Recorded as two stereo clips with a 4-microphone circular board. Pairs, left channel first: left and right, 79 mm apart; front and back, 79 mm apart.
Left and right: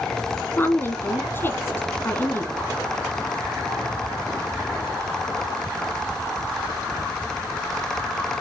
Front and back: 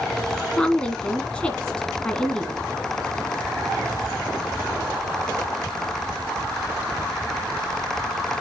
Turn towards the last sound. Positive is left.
turn(degrees=65)